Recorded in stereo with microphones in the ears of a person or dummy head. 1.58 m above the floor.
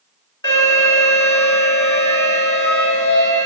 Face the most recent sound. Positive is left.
turn(degrees=25)  # may be behind; listen again after turning